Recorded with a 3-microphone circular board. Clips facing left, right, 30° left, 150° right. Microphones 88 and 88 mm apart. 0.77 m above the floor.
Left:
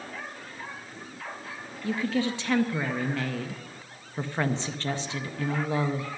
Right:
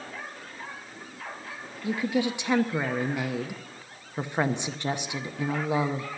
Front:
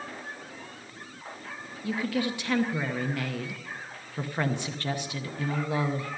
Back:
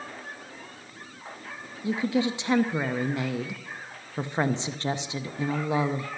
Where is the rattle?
I don't hear a rattle.